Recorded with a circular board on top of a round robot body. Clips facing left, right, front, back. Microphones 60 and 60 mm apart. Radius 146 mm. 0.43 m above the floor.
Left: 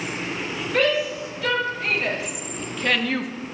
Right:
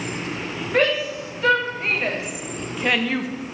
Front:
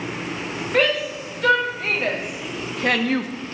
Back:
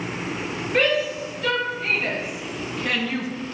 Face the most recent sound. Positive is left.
turn(degrees=5)